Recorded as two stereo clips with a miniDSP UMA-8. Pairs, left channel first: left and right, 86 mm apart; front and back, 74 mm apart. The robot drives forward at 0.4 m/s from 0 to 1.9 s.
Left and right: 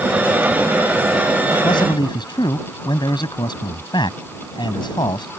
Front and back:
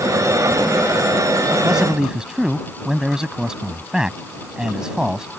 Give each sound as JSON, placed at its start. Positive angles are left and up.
{"t": 1.6, "sound": "a man speaking", "azimuth_deg": 100}